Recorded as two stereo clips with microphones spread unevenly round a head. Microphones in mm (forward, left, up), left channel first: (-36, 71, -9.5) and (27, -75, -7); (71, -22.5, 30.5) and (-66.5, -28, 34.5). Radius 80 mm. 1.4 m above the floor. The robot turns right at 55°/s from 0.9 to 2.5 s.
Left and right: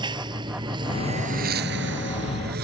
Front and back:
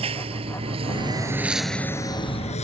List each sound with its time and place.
0.0 s a lawn mower: 130° right; by 2.6 s 40° right